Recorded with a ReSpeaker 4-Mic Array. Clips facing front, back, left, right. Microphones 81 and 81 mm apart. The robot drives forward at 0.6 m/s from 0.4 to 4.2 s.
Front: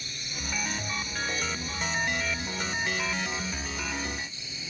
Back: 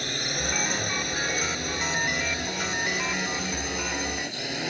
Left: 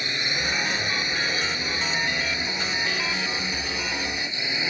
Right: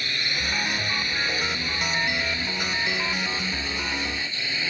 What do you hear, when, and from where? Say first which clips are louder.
0.0 s a drone: back 9 dB, left 2 dB; 160° left